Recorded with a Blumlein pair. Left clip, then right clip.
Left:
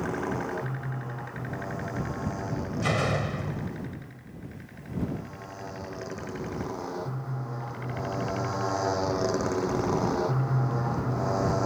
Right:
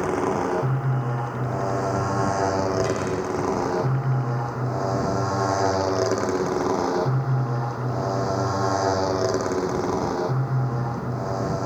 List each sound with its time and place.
0.0 s a motorcycle: 65° right; by 11.7 s straight ahead
2.8 s a door slam: 65° left